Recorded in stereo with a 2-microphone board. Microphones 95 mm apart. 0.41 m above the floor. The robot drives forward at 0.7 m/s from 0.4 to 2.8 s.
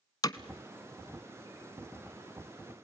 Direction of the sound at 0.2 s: 45° left (ahead or behind).